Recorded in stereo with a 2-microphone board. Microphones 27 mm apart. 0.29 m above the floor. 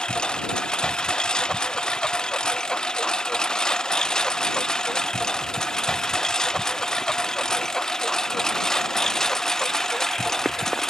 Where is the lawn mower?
30° left (ahead or behind); by 10.9 s 15° left (ahead or behind).